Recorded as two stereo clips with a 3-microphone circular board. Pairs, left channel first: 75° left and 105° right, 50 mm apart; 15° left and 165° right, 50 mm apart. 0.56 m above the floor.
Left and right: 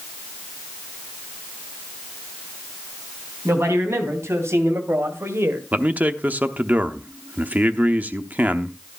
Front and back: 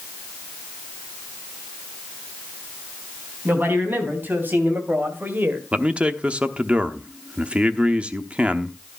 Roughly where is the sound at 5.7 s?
Behind right.